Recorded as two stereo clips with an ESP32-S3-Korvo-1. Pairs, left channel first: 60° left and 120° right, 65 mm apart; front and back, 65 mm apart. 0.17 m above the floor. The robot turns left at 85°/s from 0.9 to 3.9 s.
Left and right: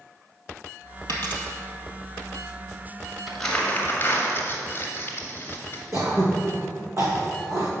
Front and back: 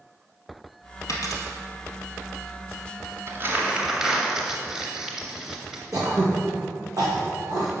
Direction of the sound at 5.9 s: 160° right.